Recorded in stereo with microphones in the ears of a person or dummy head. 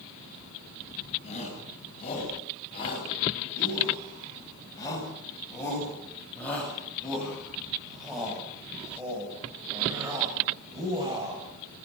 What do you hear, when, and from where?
1.2 s a shout: 35° left (ahead or behind), 9.5 m; by 11.4 s 20° right (ahead or behind), 7.5 m